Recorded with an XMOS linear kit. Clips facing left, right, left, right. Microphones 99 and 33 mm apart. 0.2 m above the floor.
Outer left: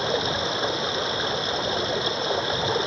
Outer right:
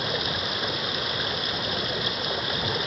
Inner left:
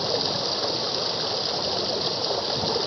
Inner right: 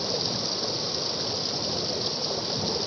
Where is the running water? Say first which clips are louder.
Outer left 5 dB, inner left 4 dB; 25° left (ahead or behind).